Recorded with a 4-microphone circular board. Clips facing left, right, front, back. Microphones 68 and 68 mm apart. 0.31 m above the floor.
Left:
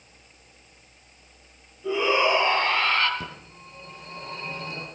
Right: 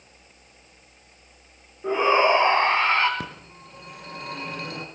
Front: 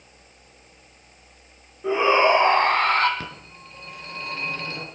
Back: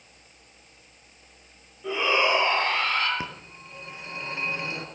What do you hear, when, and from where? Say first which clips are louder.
1.8 s a shout: right 3 dB, front 6 dB; 60° right, 1.6 m; by 3.1 s 25° right, 2 m
3.2 s a phone ringing: right 2 dB, back 1 dB; 105° right, 3 m